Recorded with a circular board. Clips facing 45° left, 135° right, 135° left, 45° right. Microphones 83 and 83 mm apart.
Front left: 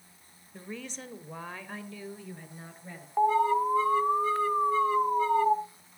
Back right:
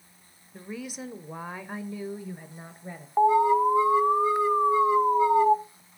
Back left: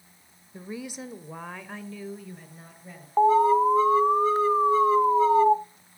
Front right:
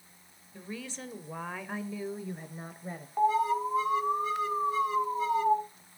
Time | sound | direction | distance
0.5 | a woman speaking | 150° left | 1.0 m
3.2 | an alarm | 160° left | 0.8 m